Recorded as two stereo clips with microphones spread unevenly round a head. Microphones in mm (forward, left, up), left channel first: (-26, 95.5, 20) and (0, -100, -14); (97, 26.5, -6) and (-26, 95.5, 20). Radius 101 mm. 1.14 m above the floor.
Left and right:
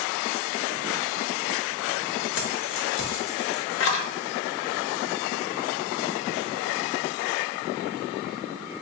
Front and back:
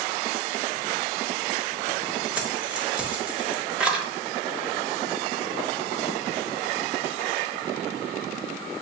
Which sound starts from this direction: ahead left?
Keys jangling, at 2.4 s.